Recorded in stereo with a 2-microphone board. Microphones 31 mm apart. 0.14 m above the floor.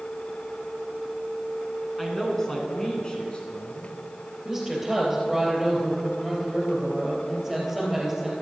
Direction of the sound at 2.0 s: 5° left (ahead or behind).